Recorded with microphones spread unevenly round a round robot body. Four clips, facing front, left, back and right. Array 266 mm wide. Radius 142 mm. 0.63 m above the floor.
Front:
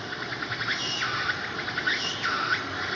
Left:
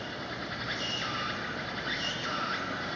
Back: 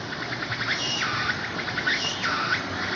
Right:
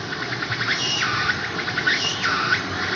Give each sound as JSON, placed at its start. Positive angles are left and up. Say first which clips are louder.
{"t": 0.0, "sound": "an insect", "louder": "right 9 dB, back 2 dB", "azimuth_deg": -95, "distance_m": 0.9}